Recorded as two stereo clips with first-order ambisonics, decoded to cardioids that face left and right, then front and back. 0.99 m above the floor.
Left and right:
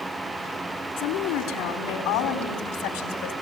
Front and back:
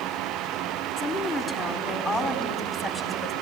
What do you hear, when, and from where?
1.0 s a woman speaking: 85° left, 3 m; by 3.3 s 95° left, 4 m